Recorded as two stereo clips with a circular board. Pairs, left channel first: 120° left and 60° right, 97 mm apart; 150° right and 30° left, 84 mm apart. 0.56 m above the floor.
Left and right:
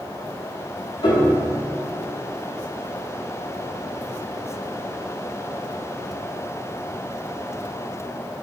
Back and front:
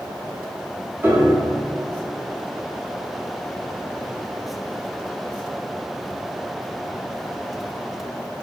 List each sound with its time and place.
1.0 s a piano: 90° left, 0.6 m